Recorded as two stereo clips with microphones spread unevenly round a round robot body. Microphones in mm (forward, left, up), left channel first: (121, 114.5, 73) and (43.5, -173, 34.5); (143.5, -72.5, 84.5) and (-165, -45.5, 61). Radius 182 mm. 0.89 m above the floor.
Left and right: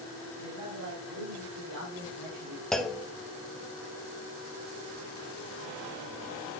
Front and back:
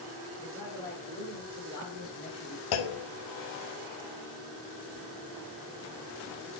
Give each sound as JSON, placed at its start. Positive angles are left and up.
{"t": 0.4, "sound": "a man speaking", "azimuth_deg": -90, "distance_m": 4.5}
{"t": 2.7, "sound": "a clunk", "azimuth_deg": -15, "distance_m": 0.8}